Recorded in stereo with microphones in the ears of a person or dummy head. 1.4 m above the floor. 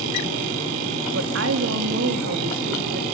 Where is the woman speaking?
75° right (ahead or behind), 2.5 m; by 3.0 s 55° right (ahead or behind), 3 m.